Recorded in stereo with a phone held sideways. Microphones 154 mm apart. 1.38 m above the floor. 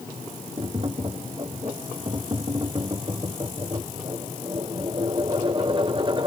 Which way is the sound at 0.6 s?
35° right (ahead or behind).